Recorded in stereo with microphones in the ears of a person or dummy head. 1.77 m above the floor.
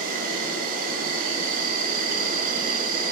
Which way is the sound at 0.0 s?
55° right (ahead or behind).